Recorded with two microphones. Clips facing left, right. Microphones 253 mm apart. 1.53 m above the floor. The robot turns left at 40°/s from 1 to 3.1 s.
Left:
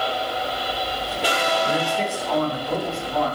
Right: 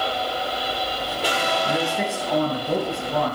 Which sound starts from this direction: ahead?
A man speaking, at 1.6 s.